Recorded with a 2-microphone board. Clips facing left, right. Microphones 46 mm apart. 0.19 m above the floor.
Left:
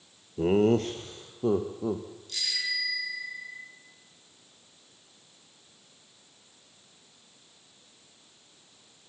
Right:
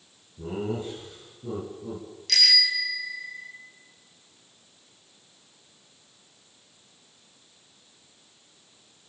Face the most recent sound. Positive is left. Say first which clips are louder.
# right 9 dB
turn(degrees=-75)  # may be behind; listen again after turning